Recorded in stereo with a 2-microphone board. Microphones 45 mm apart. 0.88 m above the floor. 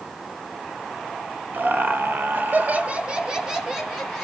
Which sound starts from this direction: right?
Laughter, at 1.5 s.